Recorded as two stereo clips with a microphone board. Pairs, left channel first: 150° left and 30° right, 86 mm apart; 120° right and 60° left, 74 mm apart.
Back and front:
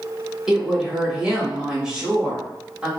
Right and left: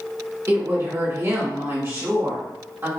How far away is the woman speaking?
About 1.2 m.